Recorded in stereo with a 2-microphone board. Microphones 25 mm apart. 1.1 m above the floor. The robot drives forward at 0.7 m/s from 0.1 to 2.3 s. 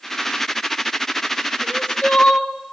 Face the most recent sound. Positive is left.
turn(degrees=65)  # may be behind; listen again after turning